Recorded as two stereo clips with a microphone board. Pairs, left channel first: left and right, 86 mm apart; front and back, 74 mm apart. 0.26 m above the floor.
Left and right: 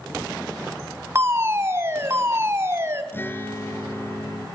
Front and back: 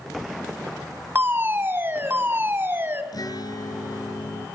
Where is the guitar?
25° left, 3 m.